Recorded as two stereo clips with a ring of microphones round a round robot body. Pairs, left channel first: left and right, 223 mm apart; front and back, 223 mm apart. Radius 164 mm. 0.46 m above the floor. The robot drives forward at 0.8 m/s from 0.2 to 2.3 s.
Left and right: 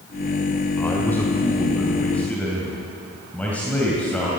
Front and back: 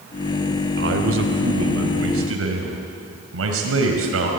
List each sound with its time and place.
0.8 s a man speaking: 170° left, 1.6 m; by 4.3 s 175° left, 2.5 m